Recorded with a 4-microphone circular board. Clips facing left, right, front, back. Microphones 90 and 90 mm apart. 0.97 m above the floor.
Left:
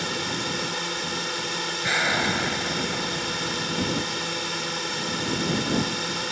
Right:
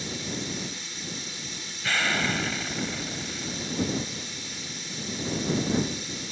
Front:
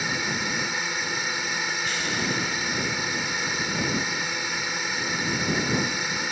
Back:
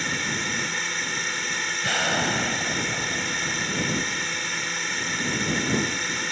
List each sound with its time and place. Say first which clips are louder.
0.0 s a drone: left 5 dB, front 1 dB; 80° left
1.8 s an explosion: left 2 dB, back 7 dB; 160° left